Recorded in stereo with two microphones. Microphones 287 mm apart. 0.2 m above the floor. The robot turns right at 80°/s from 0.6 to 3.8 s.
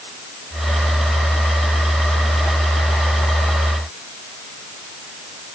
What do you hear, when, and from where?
Only background noise.